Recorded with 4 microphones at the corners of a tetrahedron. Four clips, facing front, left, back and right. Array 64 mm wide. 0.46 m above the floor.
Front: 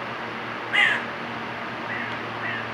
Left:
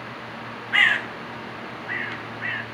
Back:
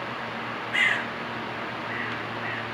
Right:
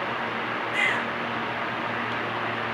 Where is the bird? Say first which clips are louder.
Left 7 dB, front 3 dB; 55° left, 5 m.